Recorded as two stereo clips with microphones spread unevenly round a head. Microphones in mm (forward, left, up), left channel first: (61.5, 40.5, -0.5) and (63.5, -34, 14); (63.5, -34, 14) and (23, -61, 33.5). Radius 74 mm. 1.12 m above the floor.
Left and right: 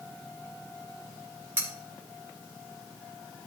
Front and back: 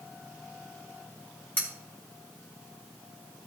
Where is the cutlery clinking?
25° right, 3 m.